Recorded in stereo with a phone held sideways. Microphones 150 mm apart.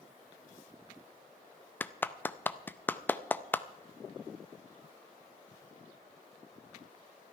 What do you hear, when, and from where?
1.8 s a clap: 10° left (ahead or behind), 0.5 m